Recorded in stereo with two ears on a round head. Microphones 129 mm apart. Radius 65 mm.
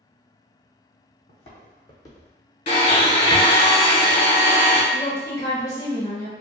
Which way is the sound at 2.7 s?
45° left (ahead or behind).